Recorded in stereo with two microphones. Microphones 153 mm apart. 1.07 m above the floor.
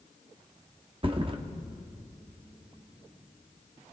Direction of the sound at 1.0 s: 35° right (ahead or behind).